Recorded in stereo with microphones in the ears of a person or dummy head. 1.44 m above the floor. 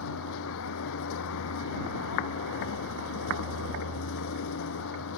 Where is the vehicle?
75° left (ahead or behind).